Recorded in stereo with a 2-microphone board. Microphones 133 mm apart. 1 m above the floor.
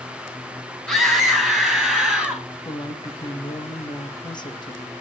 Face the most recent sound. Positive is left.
turn(degrees=35)  # may be behind; listen again after turning